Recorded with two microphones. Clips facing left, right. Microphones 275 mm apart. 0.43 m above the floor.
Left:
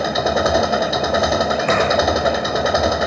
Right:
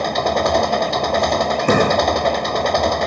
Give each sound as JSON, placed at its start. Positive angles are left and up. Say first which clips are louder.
{"t": 0.0, "sound": "an engine running", "louder": "left 1 dB", "side_deg": 5}
{"t": 1.7, "sound": "a door slam", "louder": "right 4 dB", "side_deg": -50}